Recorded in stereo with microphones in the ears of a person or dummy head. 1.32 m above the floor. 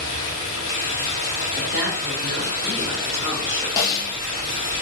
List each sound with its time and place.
0.0 s running water: 45° left (ahead or behind), 1.6 m
1.6 s a woman speaking: 10° right (ahead or behind), 1.4 m
3.8 s a snare drum: 20° left (ahead or behind), 0.8 m